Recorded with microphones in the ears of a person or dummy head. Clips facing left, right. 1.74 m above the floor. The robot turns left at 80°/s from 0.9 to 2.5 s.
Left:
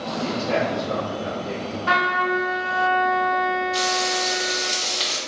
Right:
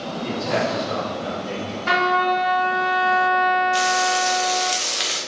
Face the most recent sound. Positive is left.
turn(degrees=-35)  # may be behind; listen again after turning